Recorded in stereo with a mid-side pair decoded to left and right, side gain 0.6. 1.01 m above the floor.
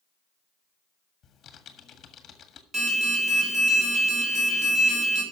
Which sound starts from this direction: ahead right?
An alarm, at 2.7 s.